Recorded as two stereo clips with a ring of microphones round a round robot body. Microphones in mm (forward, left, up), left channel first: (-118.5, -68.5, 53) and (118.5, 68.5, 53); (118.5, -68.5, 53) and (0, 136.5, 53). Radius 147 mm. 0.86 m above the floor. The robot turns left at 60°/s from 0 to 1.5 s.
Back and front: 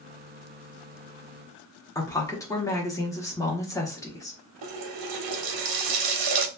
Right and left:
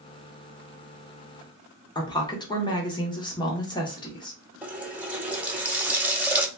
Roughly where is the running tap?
Ahead left.